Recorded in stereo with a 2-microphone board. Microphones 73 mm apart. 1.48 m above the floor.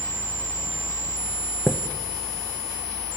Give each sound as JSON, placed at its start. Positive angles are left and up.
{"t": 1.7, "sound": "a chime", "side_deg": -5, "distance_m": 0.9}